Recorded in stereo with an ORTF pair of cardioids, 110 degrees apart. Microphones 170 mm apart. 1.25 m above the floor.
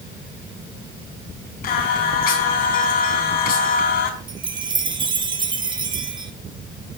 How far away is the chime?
About 1.9 m.